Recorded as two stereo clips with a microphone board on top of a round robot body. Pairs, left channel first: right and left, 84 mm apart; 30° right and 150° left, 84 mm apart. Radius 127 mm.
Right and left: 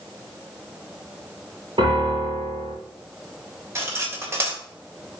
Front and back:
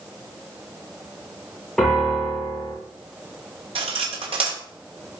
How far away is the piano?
About 6 m.